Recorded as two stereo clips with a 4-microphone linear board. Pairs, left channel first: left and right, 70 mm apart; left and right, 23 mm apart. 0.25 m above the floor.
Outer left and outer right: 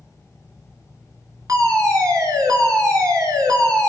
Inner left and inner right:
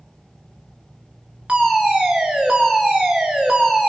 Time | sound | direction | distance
1.5 | a fire alarm | 55° right (ahead or behind) | 5.5 m